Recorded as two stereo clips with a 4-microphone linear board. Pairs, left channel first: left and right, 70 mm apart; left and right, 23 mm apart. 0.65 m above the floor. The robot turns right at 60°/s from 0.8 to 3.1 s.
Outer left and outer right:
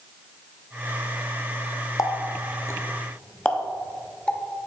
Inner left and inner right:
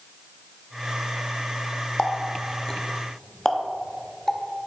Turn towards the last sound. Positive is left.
turn(degrees=15)  # may be behind; listen again after turning